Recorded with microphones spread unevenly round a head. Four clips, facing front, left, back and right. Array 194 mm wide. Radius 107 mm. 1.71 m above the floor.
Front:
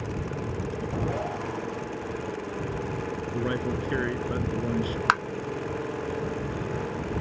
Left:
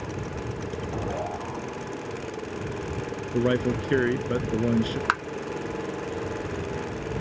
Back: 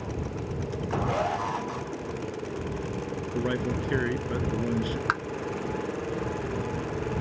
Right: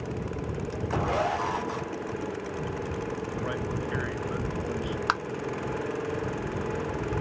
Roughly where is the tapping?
Ahead.